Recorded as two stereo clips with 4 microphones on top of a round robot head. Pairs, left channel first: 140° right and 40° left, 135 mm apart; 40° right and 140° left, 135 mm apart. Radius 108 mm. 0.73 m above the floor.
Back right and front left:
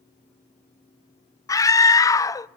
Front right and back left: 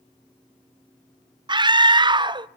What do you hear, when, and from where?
1.5 s a scream: 170° left, 0.7 m